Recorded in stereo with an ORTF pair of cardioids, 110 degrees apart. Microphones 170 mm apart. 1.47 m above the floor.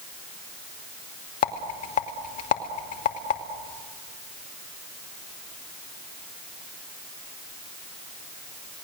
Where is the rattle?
50° left, 2.5 m.